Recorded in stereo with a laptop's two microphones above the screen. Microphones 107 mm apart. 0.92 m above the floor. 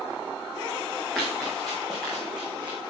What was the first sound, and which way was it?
Running footsteps, centre (ahead or behind).